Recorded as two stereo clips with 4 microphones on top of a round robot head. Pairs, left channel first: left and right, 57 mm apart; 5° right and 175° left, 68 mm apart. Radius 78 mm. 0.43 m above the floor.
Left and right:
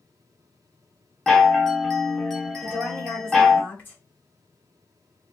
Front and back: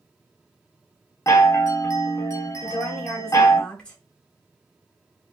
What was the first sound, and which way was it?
A chime, 10° left.